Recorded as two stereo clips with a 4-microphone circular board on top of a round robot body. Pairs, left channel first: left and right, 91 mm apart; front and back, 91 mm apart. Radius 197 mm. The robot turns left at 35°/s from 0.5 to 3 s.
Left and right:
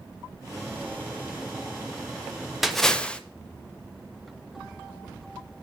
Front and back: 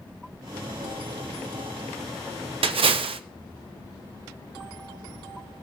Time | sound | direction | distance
2.6 | a splash | straight behind | 0.5 m